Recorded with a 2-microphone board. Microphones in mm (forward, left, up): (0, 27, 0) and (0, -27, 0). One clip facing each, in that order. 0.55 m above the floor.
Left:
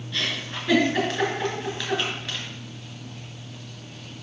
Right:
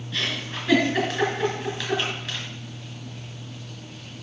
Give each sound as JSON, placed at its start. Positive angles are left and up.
{"t": 0.1, "sound": "a giggle", "side_deg": 5, "distance_m": 3.5}